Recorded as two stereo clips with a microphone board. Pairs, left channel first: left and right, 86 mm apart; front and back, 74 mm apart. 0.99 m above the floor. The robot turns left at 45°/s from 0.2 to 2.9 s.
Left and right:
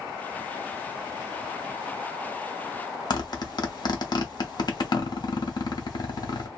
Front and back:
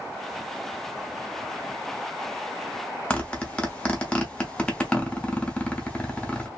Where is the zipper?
75° left, 0.9 m.